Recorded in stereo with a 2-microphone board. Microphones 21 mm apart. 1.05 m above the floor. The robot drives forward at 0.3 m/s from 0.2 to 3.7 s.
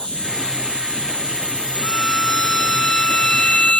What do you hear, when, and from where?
0.0 s an insect: 55° left (ahead or behind); by 3.8 s 80° left
1.8 s a violin: 35° left (ahead or behind); by 3.8 s 40° left (ahead or behind)